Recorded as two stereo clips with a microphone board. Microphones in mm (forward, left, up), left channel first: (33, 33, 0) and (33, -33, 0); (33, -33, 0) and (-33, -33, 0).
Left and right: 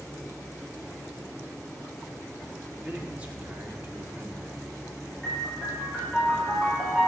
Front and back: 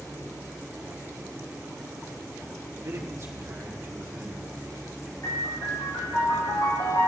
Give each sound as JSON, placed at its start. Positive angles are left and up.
{"t": 2.8, "sound": "a man speaking", "azimuth_deg": -165, "distance_m": 1.6}
{"t": 5.2, "sound": "a piano", "azimuth_deg": 5, "distance_m": 3.0}